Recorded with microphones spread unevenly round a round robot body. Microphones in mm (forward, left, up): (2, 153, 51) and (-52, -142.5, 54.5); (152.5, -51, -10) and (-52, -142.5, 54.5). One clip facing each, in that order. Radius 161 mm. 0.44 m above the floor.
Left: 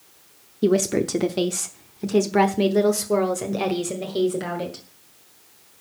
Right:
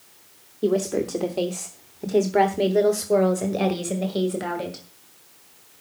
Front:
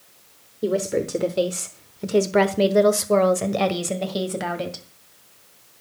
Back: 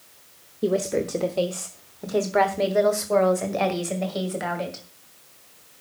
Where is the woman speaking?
95° left, 0.9 m; by 4.8 s 10° right, 2.5 m.